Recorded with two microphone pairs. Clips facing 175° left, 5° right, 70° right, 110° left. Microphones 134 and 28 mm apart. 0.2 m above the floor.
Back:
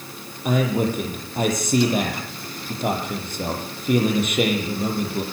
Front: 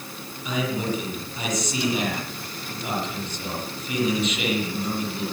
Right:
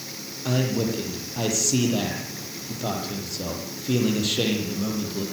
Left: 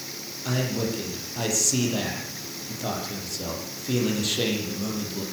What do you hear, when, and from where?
0.5 s a man speaking: 150° right, 7.5 m